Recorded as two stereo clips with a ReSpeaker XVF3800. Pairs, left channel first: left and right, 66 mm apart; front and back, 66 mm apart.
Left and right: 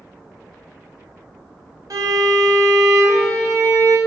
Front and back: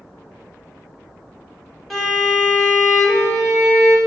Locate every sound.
1.9 s a violin: 90° right, 0.9 m